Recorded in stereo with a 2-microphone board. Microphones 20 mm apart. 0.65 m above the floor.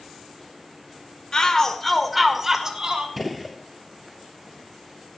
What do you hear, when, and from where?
1.3 s a shout: 35° left (ahead or behind), 2 m; by 3.1 s 35° right (ahead or behind), 2.5 m
3.2 s a gunshot: 5° right (ahead or behind), 1.3 m